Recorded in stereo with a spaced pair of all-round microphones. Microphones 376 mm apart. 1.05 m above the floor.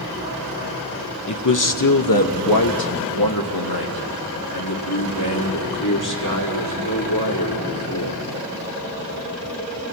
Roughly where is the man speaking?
Left.